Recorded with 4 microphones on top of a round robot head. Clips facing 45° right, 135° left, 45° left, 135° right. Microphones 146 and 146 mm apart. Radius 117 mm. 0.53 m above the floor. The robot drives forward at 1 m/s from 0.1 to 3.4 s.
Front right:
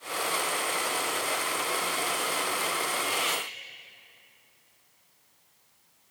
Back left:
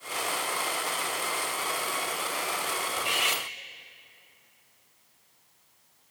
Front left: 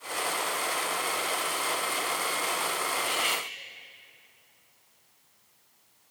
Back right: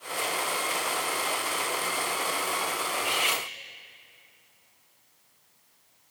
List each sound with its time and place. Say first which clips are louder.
3.0 s cutlery clinking: front right 1 dB, back right 1 dB; 145° left, 0.9 m; by 3.5 s 160° left, 1.2 m